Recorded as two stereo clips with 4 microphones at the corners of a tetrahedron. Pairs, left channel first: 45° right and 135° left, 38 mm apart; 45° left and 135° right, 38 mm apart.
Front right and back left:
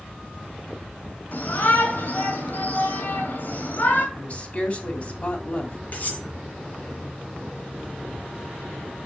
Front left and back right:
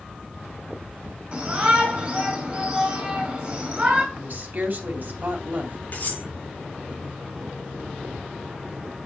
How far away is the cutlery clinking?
About 4.5 m.